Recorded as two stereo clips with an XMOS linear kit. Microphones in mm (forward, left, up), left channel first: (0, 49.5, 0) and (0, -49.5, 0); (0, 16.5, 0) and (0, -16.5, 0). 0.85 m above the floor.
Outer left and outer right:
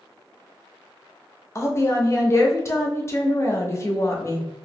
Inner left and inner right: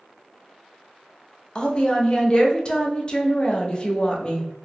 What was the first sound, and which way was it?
A woman speaking, 30° left (ahead or behind).